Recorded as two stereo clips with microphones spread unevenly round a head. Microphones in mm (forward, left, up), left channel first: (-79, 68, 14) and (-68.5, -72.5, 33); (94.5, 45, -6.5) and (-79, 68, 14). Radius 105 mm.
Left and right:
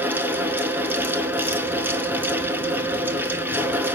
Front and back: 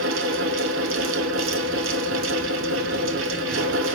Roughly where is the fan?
Behind.